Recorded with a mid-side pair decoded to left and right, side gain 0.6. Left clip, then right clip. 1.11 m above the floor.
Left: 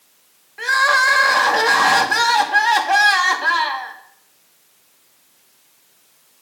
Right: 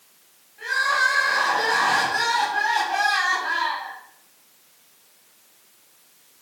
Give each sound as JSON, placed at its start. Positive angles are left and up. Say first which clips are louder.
{"t": 0.6, "sound": "crying", "louder": "left 6 dB", "azimuth_deg": 65, "distance_m": 2.0}